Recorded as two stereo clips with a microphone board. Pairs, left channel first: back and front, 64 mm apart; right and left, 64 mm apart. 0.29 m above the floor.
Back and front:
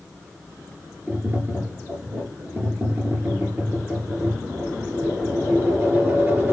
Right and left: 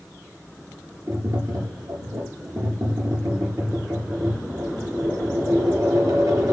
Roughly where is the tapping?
Ahead left.